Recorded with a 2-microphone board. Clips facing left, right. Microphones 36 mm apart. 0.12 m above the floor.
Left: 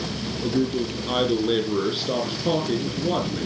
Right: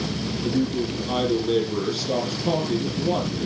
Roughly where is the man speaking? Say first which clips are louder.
Left 1 dB; left.